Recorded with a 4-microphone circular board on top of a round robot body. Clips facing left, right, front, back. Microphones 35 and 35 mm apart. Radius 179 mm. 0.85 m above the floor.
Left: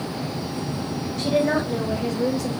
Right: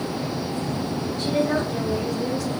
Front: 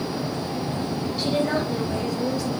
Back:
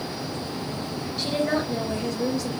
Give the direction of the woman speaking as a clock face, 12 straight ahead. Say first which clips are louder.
Left 2 dB, front 1 dB; 9 o'clock.